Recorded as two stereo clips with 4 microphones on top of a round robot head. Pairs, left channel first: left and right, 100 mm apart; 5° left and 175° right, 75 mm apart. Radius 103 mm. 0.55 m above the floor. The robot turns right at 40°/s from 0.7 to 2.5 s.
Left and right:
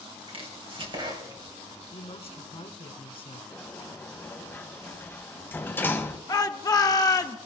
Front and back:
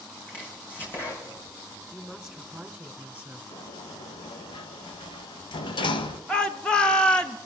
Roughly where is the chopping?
Ahead right.